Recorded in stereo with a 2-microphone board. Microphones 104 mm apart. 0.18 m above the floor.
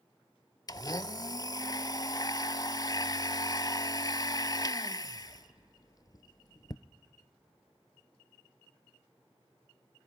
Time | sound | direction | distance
0.7 | a blender | 40° left (ahead or behind) | 0.6 m